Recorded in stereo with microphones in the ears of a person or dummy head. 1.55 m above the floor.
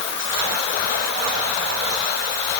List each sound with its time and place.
Only background noise.